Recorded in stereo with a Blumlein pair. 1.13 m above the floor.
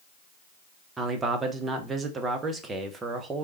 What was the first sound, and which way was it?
A man speaking, 15° right.